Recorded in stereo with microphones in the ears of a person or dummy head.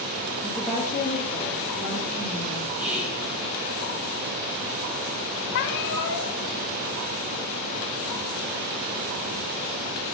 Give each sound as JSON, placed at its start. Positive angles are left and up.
{"t": 0.4, "sound": "a woman speaking", "side_deg": -5, "distance_m": 0.6}
{"t": 2.8, "sound": "whispering", "side_deg": 0, "distance_m": 1.8}
{"t": 5.5, "sound": "a cat meowing", "side_deg": 55, "distance_m": 0.9}